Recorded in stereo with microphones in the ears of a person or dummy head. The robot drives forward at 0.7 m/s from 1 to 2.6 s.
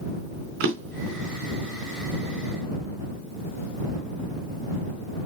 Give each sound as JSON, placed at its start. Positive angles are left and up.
{"t": 0.6, "sound": "a drawer", "side_deg": -65, "distance_m": 3.0}